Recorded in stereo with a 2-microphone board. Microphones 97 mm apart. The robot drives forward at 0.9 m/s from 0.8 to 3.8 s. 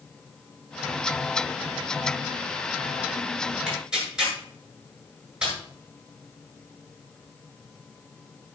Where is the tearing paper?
10° right (ahead or behind), 8 m.